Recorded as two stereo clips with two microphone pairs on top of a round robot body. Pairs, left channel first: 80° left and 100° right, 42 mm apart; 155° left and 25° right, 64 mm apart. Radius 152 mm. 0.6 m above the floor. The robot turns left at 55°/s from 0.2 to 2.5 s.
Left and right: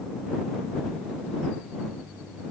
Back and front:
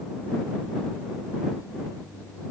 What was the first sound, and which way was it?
Only background noise.